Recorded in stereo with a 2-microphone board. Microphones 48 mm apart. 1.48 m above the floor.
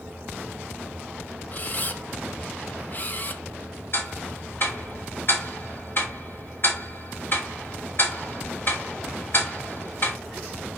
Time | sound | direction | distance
1.5 | a camera shutter | 35° left (ahead or behind) | 0.7 m
3.9 | ticking | 55° left (ahead or behind) | 3.5 m